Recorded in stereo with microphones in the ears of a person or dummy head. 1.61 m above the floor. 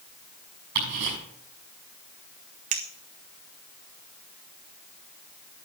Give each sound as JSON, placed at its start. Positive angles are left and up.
{"t": 0.8, "sound": "ticking", "side_deg": -65, "distance_m": 6.5}
{"t": 2.7, "sound": "a clink", "side_deg": -30, "distance_m": 0.5}